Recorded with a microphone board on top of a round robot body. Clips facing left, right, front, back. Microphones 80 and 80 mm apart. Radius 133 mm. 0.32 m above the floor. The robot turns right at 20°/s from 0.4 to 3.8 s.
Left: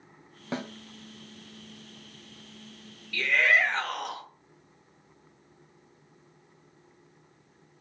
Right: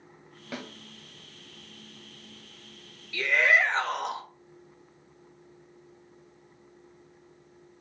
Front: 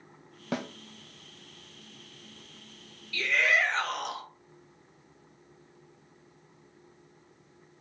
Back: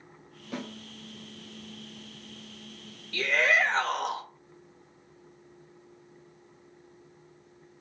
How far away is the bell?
I don't hear a bell.